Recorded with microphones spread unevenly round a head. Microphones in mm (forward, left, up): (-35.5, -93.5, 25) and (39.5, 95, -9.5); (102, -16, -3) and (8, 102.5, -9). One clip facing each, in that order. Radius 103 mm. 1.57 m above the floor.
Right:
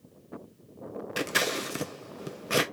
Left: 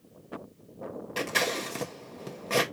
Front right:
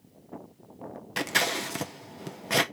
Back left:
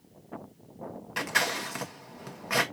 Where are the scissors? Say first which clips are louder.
Even, front right 2 dB; 70° right, 0.6 m.